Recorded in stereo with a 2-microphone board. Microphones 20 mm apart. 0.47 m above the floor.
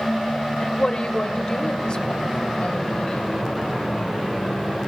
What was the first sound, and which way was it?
A woman speaking, 40° left (ahead or behind).